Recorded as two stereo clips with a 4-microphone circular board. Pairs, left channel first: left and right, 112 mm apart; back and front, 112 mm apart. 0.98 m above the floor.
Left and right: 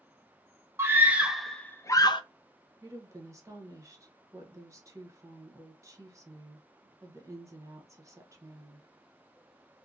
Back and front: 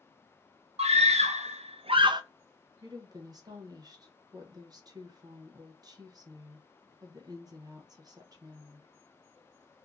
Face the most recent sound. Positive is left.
turn(degrees=-40)